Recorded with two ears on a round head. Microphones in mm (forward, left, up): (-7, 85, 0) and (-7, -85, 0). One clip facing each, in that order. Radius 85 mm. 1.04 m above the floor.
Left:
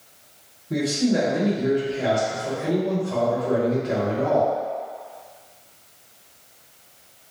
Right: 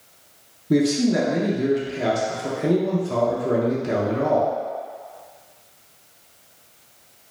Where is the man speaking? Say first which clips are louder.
Right 3 dB; 60° right (ahead or behind), 0.6 m.